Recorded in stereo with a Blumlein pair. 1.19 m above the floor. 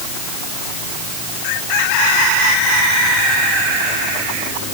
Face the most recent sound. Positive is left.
No sound to turn to.